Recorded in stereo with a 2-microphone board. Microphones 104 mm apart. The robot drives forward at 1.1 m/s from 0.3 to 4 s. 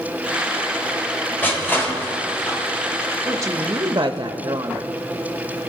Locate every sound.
1.4 s crushing: 20° left (ahead or behind), 3.5 m; by 2.6 s 30° left (ahead or behind), 2.5 m
3.2 s a woman speaking: 25° right (ahead or behind), 1.0 m; by 4.9 s 40° right (ahead or behind), 0.7 m